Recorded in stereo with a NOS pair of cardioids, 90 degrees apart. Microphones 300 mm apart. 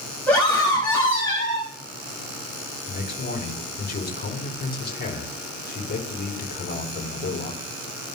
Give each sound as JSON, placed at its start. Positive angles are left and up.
{"t": 0.3, "sound": "a scream", "azimuth_deg": 5, "distance_m": 6.0}
{"t": 2.9, "sound": "a man speaking", "azimuth_deg": 35, "distance_m": 4.0}